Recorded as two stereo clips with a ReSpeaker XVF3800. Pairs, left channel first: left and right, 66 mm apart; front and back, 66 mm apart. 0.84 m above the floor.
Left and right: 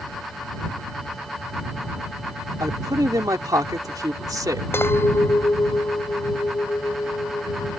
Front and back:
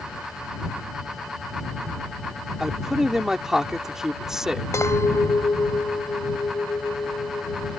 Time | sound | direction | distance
2.6 | a man speaking | 95° right | ?
4.7 | a clink | 40° left | ?